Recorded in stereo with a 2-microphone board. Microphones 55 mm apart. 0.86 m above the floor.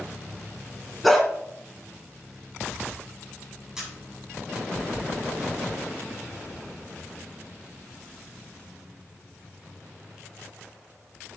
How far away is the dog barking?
About 2.5 m.